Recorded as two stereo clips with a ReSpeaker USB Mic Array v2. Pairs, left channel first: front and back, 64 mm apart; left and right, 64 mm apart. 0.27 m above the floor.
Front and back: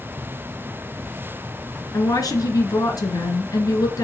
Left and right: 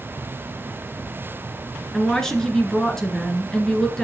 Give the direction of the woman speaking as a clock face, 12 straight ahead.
12 o'clock.